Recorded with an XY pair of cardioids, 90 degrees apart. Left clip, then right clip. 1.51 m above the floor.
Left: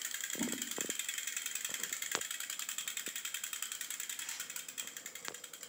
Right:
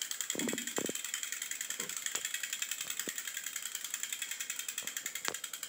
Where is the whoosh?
40° left, 0.8 m.